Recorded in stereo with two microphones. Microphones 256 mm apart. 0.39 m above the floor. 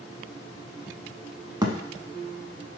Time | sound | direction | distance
1.6 | a thud | 15° right (ahead or behind) | 0.6 m